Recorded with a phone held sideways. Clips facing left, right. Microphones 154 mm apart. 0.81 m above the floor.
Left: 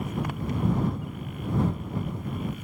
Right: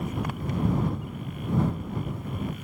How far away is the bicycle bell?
I don't hear a bicycle bell.